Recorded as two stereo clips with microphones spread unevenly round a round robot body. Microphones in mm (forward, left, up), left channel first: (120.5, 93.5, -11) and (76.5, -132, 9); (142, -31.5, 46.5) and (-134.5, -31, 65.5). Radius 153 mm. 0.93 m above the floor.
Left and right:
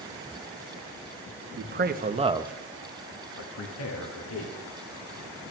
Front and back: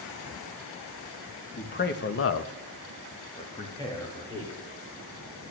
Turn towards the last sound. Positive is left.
turn(degrees=85)